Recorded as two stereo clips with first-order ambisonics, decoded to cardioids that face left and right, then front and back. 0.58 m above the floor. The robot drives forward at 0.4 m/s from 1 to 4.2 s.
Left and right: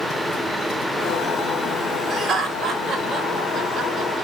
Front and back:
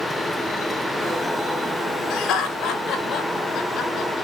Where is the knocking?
I don't hear knocking.